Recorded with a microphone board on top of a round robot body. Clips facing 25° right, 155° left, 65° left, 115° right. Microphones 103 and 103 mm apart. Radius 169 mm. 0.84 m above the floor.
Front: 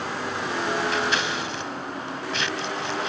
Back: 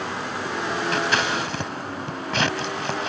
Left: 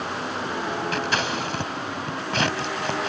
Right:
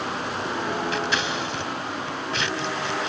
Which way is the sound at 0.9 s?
110° left.